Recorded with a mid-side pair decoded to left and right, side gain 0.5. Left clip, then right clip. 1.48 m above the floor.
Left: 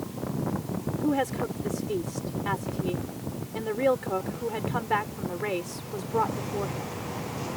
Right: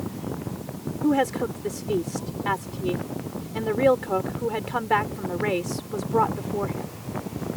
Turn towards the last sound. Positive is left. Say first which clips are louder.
# right 5 dB
turn(degrees=-25)